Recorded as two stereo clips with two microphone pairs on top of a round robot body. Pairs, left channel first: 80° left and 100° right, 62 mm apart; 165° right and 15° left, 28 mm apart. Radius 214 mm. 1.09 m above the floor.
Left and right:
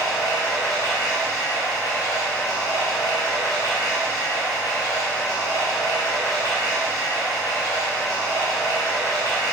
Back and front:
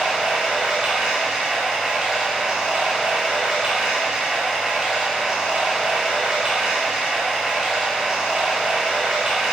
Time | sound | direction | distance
0.0 | running water | 85° left | 1.5 m